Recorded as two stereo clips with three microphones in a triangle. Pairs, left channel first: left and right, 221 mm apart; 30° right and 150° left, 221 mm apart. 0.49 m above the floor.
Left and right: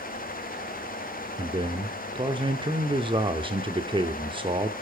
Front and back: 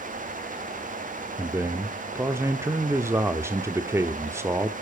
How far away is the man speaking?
About 0.8 m.